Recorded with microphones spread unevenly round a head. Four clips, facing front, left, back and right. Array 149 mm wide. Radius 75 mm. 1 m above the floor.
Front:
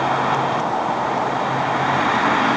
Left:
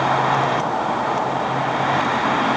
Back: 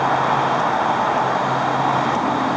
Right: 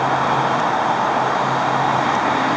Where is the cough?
I don't hear a cough.